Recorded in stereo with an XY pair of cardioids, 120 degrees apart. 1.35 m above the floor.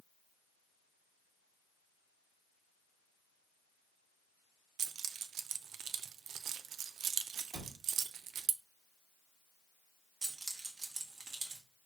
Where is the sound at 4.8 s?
65° right, 0.6 m.